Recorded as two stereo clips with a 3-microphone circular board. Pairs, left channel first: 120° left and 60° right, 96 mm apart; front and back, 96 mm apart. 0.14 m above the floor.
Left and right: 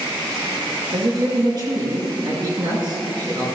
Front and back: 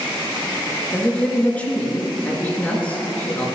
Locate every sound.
0.9 s a man speaking: 70° right, 2 m